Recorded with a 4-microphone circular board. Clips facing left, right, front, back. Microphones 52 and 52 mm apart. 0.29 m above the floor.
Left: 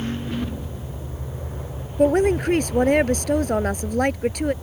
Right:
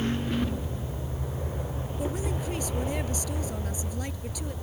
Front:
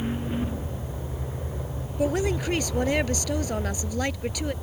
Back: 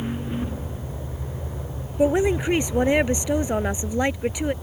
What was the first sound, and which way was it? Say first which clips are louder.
A woman speaking: left 16 dB, back 6 dB; 110° left.